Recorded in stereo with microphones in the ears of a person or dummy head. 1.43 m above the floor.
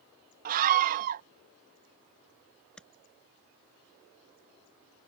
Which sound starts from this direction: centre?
Tapping, at 2.8 s.